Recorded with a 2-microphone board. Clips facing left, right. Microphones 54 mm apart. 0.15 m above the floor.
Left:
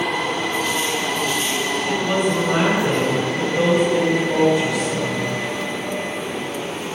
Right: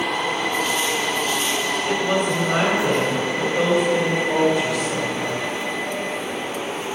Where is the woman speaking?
5° left (ahead or behind), 1.5 m.